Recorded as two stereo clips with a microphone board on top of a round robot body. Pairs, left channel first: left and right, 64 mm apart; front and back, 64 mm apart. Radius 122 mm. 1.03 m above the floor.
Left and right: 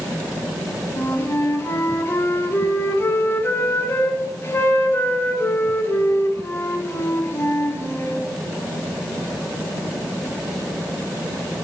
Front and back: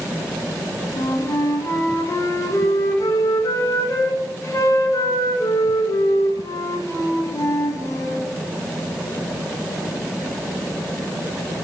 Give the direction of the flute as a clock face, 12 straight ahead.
11 o'clock.